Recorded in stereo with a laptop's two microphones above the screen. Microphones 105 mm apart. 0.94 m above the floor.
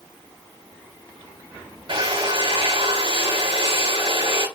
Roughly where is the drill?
Right.